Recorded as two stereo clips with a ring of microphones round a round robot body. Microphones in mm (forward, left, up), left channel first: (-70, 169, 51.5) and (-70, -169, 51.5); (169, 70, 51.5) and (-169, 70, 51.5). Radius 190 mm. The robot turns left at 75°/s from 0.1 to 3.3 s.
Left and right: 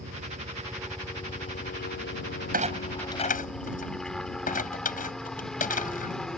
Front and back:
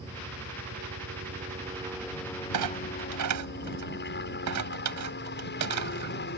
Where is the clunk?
150° right; by 6.1 s 155° left.